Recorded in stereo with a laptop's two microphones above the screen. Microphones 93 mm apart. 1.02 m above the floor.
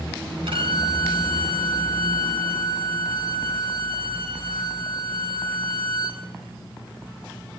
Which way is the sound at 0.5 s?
70° right (ahead or behind).